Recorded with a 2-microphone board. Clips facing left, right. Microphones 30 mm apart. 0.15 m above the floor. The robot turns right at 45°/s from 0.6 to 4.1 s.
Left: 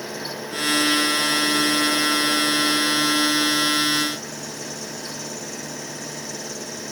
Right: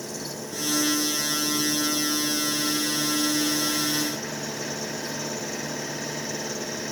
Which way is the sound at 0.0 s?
35° left.